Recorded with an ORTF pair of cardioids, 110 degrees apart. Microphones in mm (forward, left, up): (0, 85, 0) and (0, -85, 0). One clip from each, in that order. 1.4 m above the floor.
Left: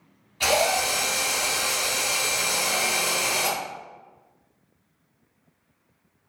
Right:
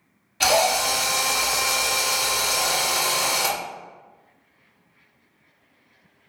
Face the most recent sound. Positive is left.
turn(degrees=-40)